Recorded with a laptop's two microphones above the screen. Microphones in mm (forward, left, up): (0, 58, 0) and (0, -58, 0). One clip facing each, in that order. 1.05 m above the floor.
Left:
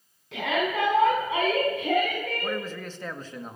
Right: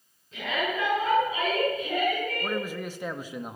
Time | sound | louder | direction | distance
0.3 | a shout | left 3 dB | 85° left | 8 m
2.4 | a man speaking | right 1 dB | 10° right (ahead or behind) | 2 m